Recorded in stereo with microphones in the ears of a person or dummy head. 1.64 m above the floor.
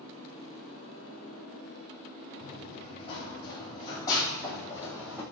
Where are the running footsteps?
35° left (ahead or behind), 5.5 m; by 5.2 s 15° left (ahead or behind), 5 m.